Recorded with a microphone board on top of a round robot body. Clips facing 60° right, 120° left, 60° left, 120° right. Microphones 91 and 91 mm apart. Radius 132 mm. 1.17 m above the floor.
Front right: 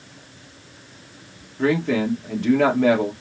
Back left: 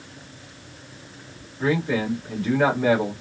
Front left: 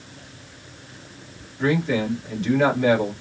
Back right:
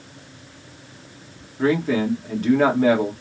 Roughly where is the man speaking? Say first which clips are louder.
Front right 3 dB, back right 2 dB; right.